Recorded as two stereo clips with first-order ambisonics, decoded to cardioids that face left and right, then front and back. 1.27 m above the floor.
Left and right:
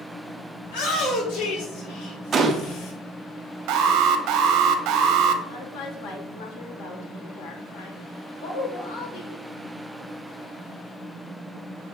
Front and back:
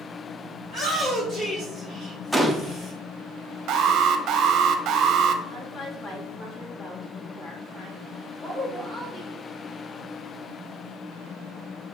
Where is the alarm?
130° right, 0.7 m.